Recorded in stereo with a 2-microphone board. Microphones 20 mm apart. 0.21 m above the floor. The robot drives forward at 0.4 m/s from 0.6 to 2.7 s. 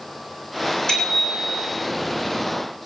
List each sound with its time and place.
0.9 s a bicycle bell: 40° left (ahead or behind), 8.5 m